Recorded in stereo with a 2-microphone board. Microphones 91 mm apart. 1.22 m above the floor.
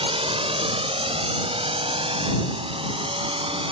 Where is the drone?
75° right (ahead or behind); by 3.7 s 70° right (ahead or behind).